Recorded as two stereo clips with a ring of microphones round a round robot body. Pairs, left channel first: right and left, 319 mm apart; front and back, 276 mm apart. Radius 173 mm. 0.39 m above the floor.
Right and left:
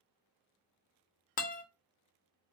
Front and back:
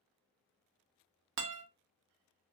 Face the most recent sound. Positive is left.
turn(degrees=-150)